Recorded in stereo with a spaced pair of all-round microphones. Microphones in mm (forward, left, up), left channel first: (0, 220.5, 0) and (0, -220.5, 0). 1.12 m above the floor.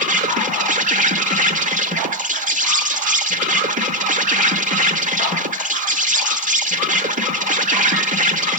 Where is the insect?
15° right (ahead or behind), 0.9 m.